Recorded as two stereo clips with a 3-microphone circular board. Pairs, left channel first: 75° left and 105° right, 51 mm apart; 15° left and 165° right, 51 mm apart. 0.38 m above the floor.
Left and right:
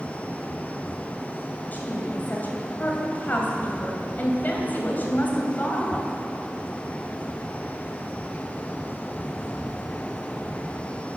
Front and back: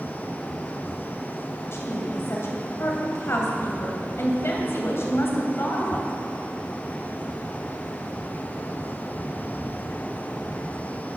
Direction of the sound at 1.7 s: 30° left.